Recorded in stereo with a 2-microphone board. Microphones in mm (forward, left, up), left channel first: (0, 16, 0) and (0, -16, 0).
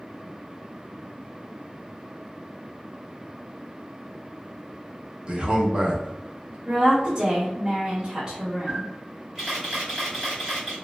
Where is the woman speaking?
25° right (ahead or behind), 1.1 m.